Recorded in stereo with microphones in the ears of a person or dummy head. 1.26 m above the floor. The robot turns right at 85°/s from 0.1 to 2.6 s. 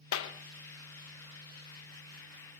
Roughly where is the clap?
Left.